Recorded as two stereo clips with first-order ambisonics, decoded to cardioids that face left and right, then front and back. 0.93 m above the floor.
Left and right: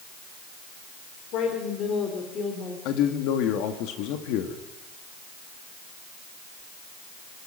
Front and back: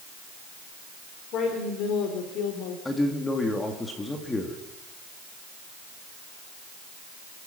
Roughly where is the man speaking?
Left.